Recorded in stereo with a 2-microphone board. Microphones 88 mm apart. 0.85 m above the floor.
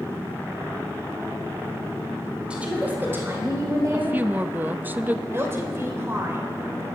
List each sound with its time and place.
2.5 s a woman speaking: 10° right (ahead or behind), 3 m; by 4.2 s 40° right (ahead or behind), 4.5 m
3.9 s a woman speaking: 20° right (ahead or behind), 0.5 m
5.3 s a woman speaking: 30° right (ahead or behind), 3 m